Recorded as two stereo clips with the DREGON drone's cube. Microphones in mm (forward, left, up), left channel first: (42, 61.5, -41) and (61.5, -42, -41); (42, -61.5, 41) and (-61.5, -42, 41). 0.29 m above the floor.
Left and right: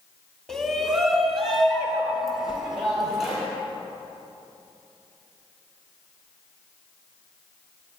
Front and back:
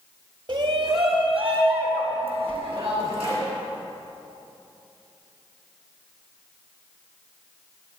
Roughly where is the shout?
Behind.